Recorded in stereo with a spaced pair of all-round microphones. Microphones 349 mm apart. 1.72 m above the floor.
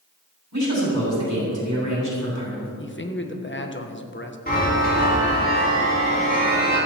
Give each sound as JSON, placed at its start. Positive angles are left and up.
{"t": 0.5, "sound": "a man speaking", "side_deg": -50, "distance_m": 7.0}
{"t": 2.8, "sound": "a man speaking", "side_deg": 35, "distance_m": 1.4}
{"t": 4.5, "sound": "a chime", "side_deg": 25, "distance_m": 6.0}